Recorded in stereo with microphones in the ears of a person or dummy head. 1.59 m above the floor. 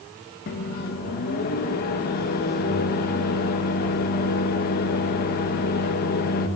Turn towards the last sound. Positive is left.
turn(degrees=50)  # may be behind; listen again after turning